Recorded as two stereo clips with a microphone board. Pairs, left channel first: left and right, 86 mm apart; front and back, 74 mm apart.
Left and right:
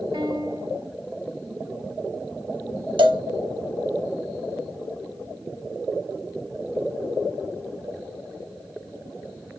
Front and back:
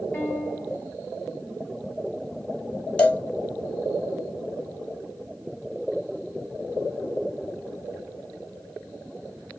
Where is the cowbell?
75° right, 2.5 m.